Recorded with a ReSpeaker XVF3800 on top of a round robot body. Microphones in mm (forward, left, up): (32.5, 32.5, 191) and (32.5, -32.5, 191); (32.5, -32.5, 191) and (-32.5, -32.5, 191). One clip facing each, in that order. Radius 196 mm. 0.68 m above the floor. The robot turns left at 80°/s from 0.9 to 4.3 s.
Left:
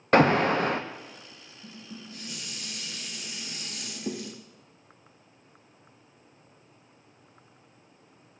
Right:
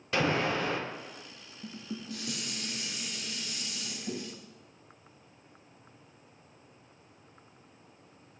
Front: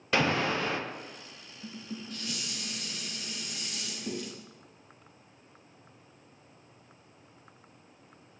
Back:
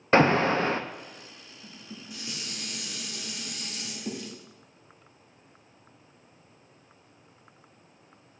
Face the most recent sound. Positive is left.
turn(degrees=85)